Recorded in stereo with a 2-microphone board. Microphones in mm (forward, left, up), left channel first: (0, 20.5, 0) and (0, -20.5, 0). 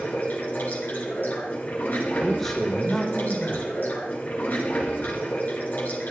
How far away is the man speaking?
About 1.7 m.